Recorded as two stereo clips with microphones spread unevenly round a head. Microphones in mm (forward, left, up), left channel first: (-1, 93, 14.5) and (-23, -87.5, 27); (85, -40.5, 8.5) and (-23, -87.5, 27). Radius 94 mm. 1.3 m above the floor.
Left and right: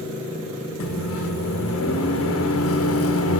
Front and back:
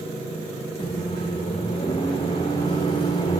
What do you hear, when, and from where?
0.8 s a microwave: 85° left, 0.6 m